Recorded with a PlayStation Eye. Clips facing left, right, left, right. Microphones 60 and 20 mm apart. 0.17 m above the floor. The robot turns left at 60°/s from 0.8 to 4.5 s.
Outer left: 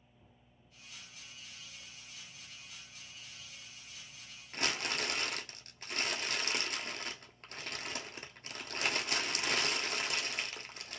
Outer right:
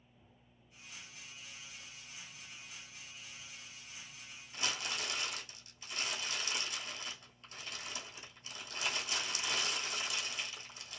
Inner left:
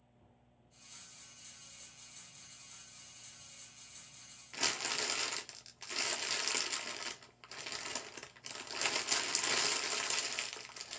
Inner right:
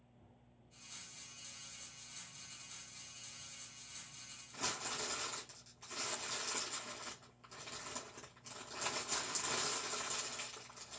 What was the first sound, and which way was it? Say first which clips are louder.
Crumpling: outer left 4 dB, inner left 6 dB; 60° left (ahead or behind).